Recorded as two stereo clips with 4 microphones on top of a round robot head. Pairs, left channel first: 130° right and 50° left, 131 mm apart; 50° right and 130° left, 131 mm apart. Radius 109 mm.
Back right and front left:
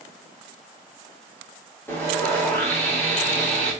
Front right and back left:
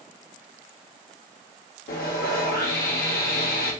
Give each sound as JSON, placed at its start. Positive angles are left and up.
{"t": 1.9, "sound": "sawing", "azimuth_deg": -55, "distance_m": 1.7}